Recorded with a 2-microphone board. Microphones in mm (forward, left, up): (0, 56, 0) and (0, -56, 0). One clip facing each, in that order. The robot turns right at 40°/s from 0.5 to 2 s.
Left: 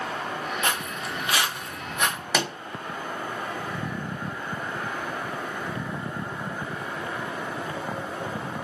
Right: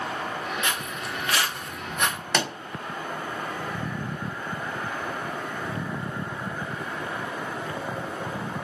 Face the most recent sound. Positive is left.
turn(degrees=5)  # may be behind; listen again after turning